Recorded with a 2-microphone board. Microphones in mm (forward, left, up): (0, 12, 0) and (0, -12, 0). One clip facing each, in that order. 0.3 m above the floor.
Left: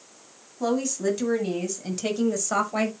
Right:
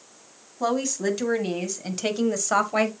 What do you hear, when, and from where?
0.6 s a woman speaking: 25° right (ahead or behind), 2 m; by 2.9 s 20° right (ahead or behind), 1.1 m